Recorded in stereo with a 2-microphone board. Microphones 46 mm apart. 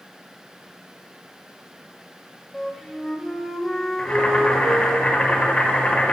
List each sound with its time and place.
2.5 s a flute: 5° right (ahead or behind), 0.5 m
4.0 s boiling: 30° left (ahead or behind), 0.9 m